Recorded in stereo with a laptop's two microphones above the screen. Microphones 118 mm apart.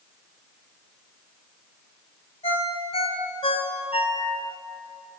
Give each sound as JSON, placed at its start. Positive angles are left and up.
{"t": 2.4, "sound": "a ringtone", "side_deg": 65, "distance_m": 1.7}